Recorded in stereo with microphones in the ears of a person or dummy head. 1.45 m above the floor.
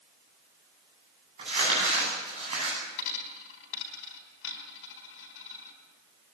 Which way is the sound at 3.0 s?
75° left (ahead or behind).